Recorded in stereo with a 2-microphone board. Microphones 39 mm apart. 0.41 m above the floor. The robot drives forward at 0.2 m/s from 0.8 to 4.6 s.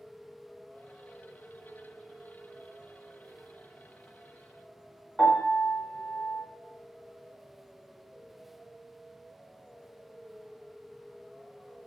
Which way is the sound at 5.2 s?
20° left (ahead or behind).